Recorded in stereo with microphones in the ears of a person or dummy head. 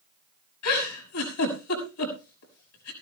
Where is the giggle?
80° left, 6 m.